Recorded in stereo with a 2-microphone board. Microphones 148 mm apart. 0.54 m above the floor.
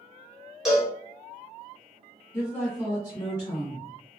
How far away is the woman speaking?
About 1.6 m.